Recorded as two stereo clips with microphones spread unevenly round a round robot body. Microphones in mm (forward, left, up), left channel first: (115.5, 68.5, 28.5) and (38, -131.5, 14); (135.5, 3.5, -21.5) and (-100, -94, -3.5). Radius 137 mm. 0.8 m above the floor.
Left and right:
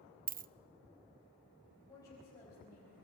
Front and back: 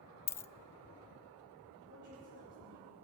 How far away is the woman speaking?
About 4.5 m.